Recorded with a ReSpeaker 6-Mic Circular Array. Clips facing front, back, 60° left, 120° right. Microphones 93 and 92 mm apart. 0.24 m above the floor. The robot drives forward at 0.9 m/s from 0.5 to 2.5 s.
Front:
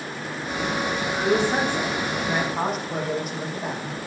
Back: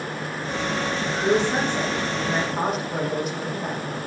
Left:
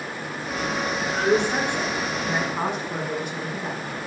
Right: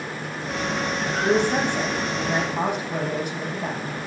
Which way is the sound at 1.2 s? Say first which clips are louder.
Even, right 1 dB; 80° right.